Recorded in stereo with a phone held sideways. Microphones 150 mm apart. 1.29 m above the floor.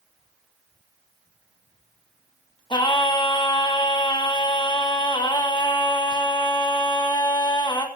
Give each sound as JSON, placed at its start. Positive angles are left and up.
{"t": 2.7, "sound": "singing", "side_deg": 30, "distance_m": 1.5}